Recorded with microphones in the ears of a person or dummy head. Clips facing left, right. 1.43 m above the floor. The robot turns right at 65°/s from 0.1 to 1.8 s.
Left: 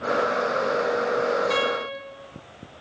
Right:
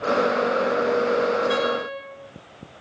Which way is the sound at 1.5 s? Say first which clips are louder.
Right 2 dB; 15° right (ahead or behind).